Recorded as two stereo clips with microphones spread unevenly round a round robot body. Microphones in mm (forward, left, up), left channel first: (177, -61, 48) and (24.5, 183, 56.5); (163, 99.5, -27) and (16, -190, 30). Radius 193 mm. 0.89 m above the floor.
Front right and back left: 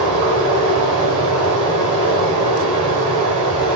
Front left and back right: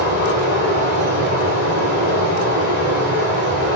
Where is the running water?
130° left, 1.3 m.